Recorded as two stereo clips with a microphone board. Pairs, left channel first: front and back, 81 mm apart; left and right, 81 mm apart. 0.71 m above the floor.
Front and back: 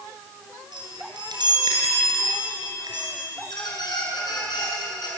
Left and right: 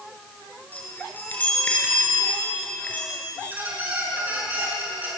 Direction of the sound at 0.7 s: 160° left.